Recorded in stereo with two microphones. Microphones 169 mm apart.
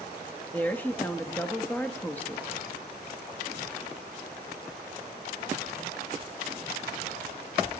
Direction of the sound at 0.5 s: 10° left (ahead or behind).